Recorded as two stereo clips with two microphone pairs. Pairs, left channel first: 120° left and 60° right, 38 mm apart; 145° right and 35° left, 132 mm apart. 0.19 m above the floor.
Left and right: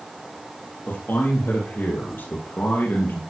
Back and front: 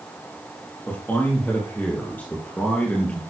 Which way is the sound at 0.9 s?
140° left.